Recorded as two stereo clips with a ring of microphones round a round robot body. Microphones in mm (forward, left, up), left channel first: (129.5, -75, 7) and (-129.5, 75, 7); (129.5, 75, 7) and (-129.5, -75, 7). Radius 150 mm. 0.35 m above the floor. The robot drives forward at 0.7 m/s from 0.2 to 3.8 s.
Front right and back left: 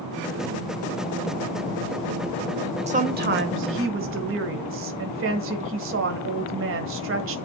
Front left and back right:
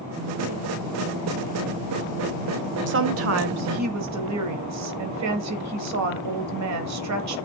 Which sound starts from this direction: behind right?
A woman speaking, at 2.9 s.